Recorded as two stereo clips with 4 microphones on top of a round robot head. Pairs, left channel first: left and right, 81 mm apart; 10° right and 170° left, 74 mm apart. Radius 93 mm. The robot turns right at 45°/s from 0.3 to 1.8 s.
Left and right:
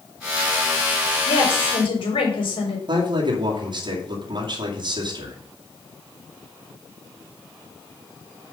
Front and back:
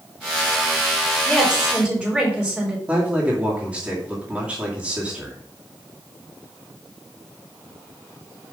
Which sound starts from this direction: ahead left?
A woman speaking, at 1.2 s.